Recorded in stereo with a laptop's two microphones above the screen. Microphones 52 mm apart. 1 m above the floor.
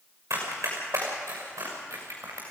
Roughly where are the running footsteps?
Right.